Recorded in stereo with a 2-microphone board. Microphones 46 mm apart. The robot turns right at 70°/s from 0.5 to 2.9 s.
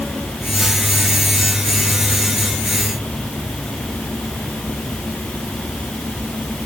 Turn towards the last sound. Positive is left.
No sound to turn to.